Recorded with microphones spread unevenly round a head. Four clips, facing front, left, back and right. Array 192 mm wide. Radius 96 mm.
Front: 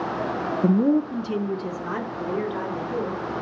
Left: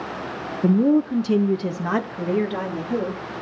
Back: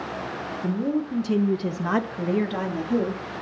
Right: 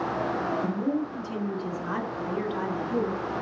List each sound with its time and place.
0.6 s a woman speaking: 45° left, 0.8 m; by 3.4 s 150° left, 3 m